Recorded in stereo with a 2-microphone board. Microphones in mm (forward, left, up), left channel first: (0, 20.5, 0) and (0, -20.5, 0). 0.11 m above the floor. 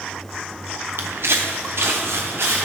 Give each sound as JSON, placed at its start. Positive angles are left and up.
{"t": 1.0, "sound": "footsteps", "side_deg": -70, "distance_m": 0.8}